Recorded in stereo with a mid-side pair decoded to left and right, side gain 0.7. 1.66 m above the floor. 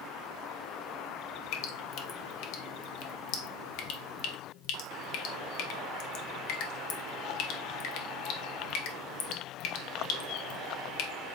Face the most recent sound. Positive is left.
turn(degrees=65)